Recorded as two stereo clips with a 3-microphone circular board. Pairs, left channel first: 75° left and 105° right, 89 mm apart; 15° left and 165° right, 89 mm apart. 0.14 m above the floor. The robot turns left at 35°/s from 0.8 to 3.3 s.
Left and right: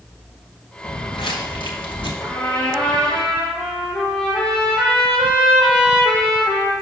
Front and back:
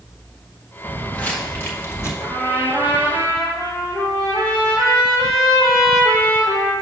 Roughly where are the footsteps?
Left.